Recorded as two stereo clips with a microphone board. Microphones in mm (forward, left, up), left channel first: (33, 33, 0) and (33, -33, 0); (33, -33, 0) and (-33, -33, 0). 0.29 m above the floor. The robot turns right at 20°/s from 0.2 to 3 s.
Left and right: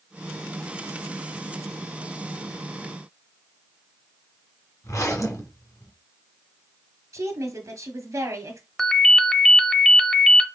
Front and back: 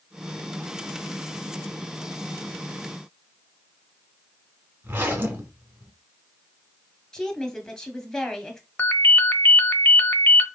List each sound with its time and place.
4.8 s a zipper: 120° left, 1.7 m
7.1 s a woman speaking: 80° right, 1.7 m
8.8 s a ringtone: 15° left, 0.7 m